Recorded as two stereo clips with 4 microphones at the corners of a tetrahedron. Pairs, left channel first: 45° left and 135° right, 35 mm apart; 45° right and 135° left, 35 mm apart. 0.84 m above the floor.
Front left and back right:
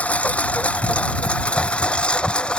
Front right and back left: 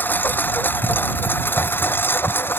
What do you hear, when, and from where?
0.0 s a lawn mower: 10° right; by 2.6 s 20° right